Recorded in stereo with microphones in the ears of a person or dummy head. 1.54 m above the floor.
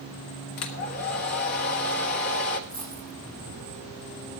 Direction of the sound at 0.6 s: 55° left (ahead or behind).